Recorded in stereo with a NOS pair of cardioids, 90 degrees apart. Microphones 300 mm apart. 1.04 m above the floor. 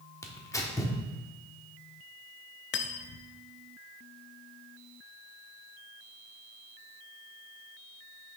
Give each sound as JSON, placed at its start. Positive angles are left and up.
{"t": 0.2, "sound": "tearing paper", "azimuth_deg": 10, "distance_m": 1.3}
{"t": 2.7, "sound": "cutlery clinking", "azimuth_deg": 40, "distance_m": 0.6}